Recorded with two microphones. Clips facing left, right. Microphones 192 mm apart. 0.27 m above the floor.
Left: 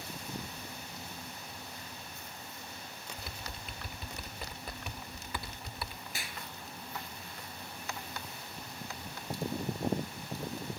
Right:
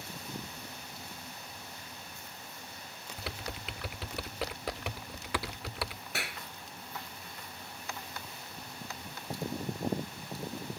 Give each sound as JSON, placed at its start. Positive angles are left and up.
{"t": 3.2, "sound": "typing on a keyboard", "side_deg": -85}
{"t": 6.1, "sound": "a clap", "side_deg": -70}